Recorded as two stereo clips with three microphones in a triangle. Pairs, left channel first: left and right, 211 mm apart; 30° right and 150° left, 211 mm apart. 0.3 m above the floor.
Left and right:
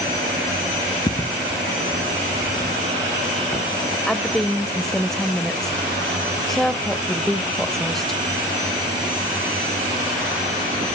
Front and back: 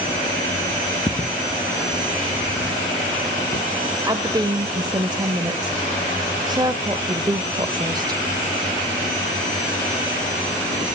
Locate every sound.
1.1 s footsteps: 35° left, 0.7 m; by 3.7 s 15° left, 4.5 m
4.1 s a woman speaking: 175° left, 0.9 m